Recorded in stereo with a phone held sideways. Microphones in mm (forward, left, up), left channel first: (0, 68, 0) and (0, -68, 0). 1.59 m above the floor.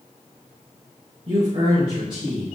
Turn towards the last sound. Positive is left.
turn(degrees=-35)  # may be behind; listen again after turning